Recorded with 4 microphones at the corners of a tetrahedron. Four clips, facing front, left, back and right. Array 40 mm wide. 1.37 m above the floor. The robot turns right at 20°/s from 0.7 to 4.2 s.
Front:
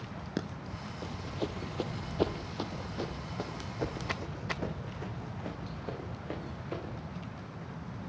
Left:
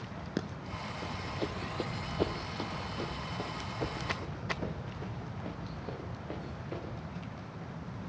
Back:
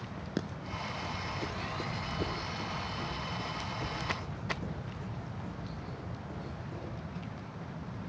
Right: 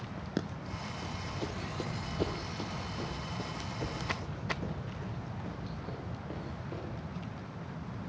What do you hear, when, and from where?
1.0 s running footsteps: 40° left, 2.5 m; by 7.0 s 15° left, 7.5 m